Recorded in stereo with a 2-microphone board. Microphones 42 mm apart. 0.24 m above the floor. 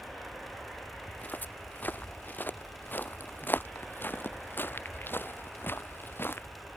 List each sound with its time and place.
1.1 s footsteps: 45° left (ahead or behind); by 6.5 s 60° left (ahead or behind)